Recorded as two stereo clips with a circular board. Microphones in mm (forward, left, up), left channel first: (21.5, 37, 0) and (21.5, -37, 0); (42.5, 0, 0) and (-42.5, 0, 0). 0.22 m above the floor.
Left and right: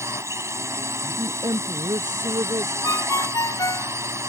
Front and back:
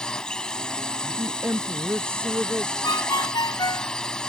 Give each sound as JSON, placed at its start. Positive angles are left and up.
{"t": 0.0, "sound": "a drone", "azimuth_deg": -75}
{"t": 1.0, "sound": "a woman speaking", "azimuth_deg": -115}
{"t": 2.8, "sound": "a ringtone", "azimuth_deg": 45}